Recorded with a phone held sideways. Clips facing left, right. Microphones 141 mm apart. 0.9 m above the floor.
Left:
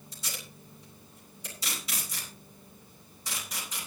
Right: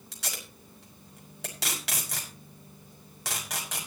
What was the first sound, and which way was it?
Tape being pulled, 80° right.